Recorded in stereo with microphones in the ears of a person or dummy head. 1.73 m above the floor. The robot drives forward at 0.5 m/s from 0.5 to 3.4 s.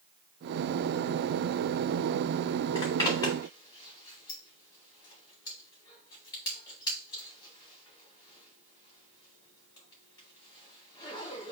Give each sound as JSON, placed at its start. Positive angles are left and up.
{"t": 2.8, "sound": "a zipper", "side_deg": 20, "distance_m": 1.5}